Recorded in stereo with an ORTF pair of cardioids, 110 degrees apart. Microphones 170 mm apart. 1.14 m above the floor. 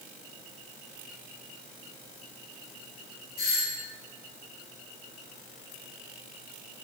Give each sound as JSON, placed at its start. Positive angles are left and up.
{"t": 3.4, "sound": "a doorbell", "azimuth_deg": 65, "distance_m": 3.5}